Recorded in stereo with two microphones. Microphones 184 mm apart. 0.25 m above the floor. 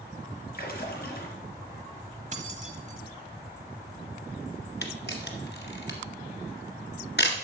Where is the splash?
55° left (ahead or behind), 2.5 m.